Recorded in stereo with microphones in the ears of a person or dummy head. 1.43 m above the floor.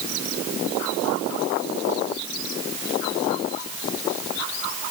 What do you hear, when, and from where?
Only background noise.